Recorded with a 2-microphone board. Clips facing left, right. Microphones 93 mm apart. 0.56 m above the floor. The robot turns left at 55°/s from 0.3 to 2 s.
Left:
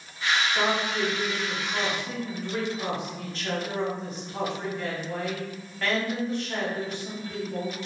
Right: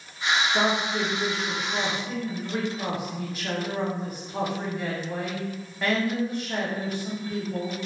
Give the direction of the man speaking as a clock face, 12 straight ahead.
3 o'clock.